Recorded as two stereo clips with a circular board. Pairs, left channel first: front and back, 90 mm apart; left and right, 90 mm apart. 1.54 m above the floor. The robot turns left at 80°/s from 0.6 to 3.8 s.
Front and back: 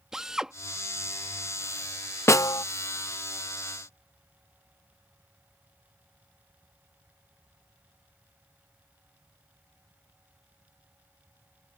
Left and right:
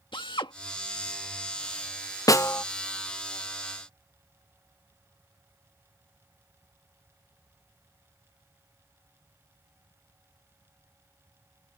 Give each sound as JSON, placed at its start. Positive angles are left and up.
{"t": 0.1, "sound": "a drill", "azimuth_deg": 100}
{"t": 2.3, "sound": "a snare drum", "azimuth_deg": 50}